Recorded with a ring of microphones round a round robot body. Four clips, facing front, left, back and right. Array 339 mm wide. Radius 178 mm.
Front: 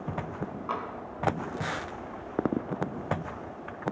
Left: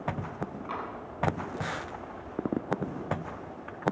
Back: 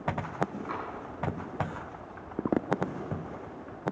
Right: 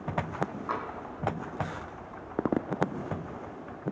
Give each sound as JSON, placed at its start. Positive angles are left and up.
{"t": 0.7, "sound": "tapping", "azimuth_deg": -40, "distance_m": 2.5}